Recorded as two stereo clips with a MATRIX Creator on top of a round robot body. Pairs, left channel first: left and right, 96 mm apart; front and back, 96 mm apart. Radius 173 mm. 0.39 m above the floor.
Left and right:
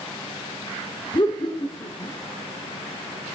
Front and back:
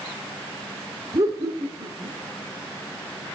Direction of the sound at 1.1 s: 125° left.